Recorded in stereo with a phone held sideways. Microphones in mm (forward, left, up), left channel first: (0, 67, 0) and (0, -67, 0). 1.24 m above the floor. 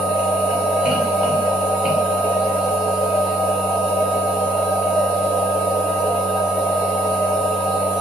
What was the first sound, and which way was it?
A machine running, 5° right (ahead or behind).